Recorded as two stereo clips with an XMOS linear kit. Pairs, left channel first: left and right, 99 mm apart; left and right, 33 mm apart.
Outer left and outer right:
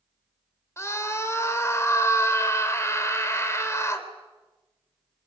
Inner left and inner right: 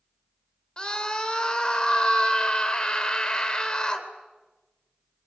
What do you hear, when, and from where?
0.8 s a scream: 25° left (ahead or behind), 3 m